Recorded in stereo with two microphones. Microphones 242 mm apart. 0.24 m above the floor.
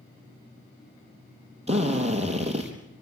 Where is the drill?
25° right (ahead or behind), 3.5 m.